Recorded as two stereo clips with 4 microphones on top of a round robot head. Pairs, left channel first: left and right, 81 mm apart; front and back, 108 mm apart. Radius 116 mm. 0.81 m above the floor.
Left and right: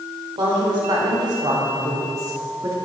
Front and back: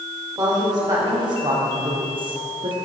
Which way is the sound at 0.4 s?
125° right.